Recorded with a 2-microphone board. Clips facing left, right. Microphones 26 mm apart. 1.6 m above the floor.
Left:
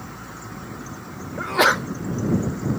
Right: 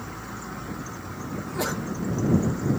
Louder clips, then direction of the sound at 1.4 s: Left 12 dB; 55° left (ahead or behind).